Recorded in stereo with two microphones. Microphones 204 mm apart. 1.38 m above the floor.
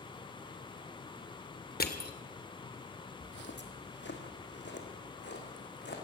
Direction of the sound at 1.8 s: 50° left (ahead or behind).